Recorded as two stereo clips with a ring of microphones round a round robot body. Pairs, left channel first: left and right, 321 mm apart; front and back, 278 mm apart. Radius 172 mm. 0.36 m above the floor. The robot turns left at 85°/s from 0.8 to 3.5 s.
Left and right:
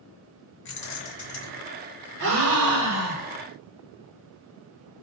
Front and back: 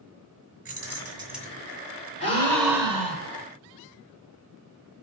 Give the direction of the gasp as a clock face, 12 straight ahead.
2 o'clock.